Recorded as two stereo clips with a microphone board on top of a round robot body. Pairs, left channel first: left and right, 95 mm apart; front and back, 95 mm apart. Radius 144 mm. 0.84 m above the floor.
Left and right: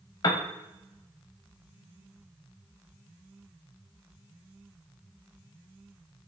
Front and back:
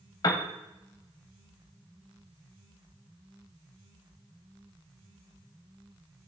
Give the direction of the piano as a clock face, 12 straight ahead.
10 o'clock.